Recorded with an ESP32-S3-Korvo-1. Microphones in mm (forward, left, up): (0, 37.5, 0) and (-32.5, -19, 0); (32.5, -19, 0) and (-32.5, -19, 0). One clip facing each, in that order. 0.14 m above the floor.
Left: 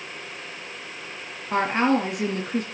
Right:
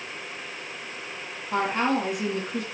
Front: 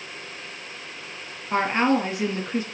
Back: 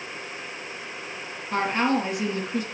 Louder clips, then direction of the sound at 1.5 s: Left 3 dB, front 2 dB; 55° left.